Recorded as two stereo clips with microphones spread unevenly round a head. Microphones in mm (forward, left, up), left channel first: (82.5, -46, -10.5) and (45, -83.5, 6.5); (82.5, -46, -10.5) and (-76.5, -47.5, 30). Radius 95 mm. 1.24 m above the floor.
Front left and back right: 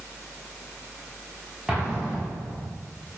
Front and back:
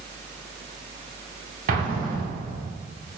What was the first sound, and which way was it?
An explosion, 135° left.